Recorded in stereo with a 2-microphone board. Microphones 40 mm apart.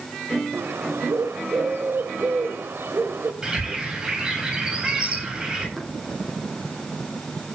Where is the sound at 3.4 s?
15° right (ahead or behind), 7.5 m.